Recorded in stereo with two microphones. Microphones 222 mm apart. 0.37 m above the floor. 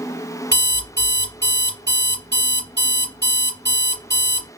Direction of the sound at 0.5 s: 55° right (ahead or behind).